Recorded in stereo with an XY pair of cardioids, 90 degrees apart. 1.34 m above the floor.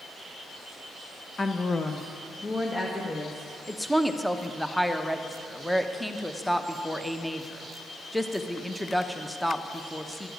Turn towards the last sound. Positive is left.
turn(degrees=0)